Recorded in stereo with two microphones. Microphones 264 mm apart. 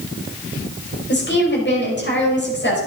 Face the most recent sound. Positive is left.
turn(degrees=40)  # may be behind; listen again after turning